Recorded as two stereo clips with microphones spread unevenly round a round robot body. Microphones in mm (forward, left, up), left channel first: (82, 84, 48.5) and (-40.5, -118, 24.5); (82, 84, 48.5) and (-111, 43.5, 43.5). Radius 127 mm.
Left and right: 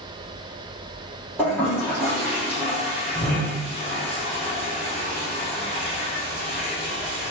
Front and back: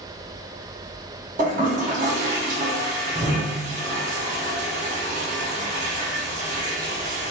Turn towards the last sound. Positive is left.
turn(degrees=140)